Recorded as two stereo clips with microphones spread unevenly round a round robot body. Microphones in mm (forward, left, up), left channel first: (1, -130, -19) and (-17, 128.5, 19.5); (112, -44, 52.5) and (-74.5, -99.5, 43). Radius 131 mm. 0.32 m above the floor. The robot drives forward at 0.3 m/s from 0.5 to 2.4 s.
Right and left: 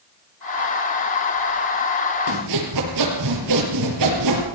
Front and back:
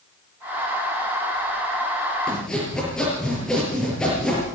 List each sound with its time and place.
2.3 s sawing: 105° left, 6 m